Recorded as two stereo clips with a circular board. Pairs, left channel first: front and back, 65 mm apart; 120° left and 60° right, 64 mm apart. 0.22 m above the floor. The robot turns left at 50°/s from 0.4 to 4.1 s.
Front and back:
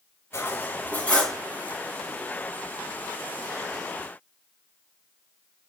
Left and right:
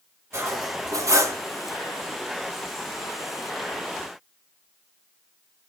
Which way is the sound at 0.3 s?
30° right.